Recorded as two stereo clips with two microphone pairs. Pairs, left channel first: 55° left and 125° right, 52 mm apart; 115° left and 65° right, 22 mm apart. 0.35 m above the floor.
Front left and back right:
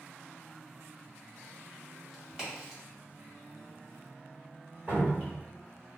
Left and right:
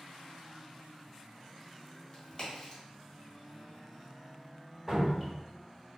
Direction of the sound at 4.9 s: 125° right.